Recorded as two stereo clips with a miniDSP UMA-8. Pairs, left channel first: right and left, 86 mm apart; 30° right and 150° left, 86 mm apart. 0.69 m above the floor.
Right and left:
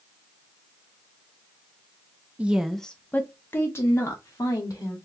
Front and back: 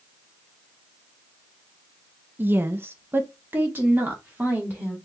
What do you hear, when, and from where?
2.4 s a woman speaking: 135° left, 0.5 m; by 5.0 s 140° right, 1.7 m